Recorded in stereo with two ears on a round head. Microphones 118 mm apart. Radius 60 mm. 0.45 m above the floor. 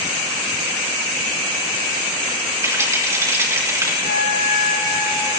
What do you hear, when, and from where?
2.6 s a rattle: 20° right (ahead or behind), 4.5 m
4.0 s a flute: 60° left (ahead or behind), 7.5 m